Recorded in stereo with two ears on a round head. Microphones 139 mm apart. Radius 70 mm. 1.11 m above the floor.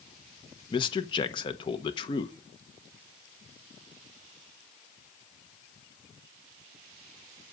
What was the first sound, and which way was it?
A man speaking, 30° left (ahead or behind).